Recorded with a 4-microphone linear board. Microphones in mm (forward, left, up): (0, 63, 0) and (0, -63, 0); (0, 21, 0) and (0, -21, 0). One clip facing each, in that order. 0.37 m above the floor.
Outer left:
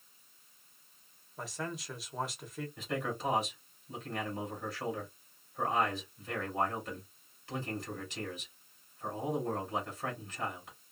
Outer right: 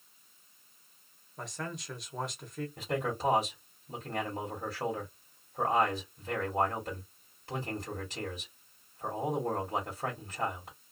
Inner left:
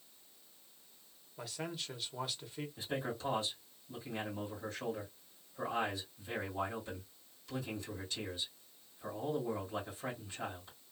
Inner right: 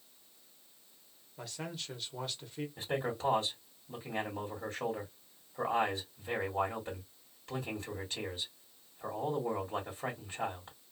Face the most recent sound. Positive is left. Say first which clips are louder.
# outer right 3 dB, inner right 4 dB
turn(degrees=-40)  # may be behind; listen again after turning